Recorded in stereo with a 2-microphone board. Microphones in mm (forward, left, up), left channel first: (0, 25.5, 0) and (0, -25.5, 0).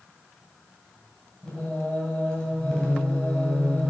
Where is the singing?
20° left (ahead or behind), 2.5 m.